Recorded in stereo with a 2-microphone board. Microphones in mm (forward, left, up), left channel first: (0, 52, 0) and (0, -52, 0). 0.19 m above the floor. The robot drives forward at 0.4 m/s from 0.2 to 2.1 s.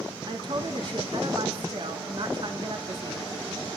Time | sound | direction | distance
0.2 | a woman speaking | 45° right (ahead or behind) | 1.9 m